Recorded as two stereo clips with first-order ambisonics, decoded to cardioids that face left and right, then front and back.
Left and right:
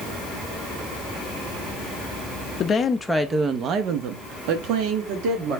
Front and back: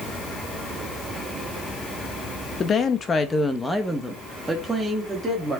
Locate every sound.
2.6 s a woman speaking: 45° left, 0.6 m; by 5.6 s 100° right, 1.4 m